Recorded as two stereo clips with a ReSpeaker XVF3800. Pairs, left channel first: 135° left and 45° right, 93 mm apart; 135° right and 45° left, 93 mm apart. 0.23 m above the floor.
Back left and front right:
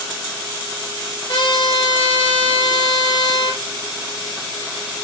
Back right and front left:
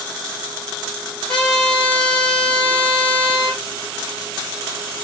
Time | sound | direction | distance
1.3 | a trumpet | 145° left | 7.5 m